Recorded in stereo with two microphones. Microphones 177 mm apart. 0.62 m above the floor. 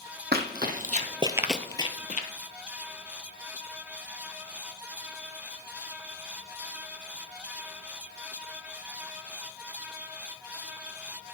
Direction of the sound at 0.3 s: 65° right (ahead or behind).